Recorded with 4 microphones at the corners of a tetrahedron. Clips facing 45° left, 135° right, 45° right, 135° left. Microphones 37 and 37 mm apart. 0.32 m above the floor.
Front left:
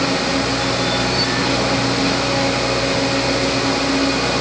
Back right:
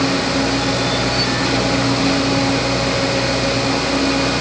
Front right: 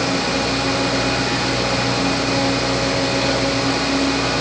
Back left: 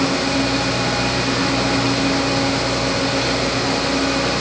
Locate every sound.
Only background noise.